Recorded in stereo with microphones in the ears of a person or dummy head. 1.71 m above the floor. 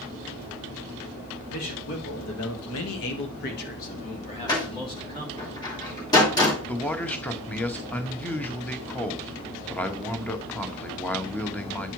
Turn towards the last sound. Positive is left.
turn(degrees=5)  # may be behind; listen again after turning